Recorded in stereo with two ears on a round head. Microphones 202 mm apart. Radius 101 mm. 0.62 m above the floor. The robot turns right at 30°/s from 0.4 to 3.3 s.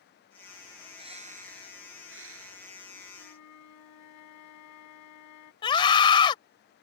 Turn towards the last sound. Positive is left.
turn(degrees=20)  # may be behind; listen again after turning